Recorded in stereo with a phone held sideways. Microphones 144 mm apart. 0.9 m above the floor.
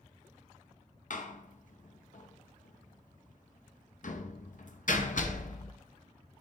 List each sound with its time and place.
1.1 s a door slam: 65° left (ahead or behind), 0.6 m